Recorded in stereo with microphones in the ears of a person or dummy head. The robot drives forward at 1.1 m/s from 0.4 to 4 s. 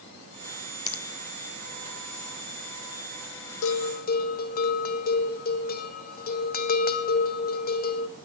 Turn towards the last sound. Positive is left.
turn(degrees=45)  # may be behind; listen again after turning